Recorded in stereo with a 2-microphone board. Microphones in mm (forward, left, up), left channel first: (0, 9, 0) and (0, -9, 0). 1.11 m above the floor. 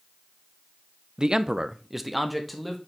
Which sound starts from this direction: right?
A man speaking, at 1.2 s.